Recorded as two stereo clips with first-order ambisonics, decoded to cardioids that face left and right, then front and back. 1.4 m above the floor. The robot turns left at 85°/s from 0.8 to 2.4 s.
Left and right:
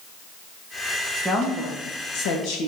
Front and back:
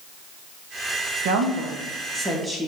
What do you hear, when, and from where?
1.2 s a woman speaking: 175° right, 2 m; by 2.7 s 90° left, 2 m